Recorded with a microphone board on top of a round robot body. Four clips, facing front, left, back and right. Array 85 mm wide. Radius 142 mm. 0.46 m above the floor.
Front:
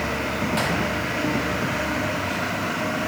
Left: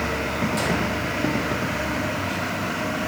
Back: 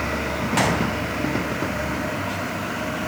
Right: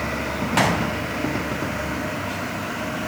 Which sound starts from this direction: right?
A gunshot, at 0.6 s.